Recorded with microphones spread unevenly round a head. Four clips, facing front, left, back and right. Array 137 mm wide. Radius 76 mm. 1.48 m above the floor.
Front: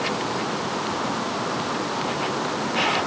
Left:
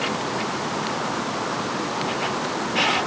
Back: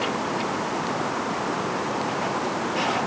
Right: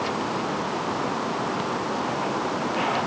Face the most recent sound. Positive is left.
No sound to turn to.